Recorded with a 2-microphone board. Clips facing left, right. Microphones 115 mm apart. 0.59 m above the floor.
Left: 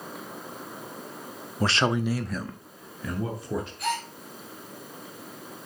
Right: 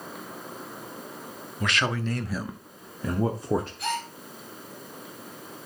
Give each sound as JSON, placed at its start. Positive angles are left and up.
{"t": 1.6, "sound": "a man speaking", "side_deg": 35, "distance_m": 0.7}
{"t": 3.8, "sound": "a gasp", "side_deg": 5, "distance_m": 4.0}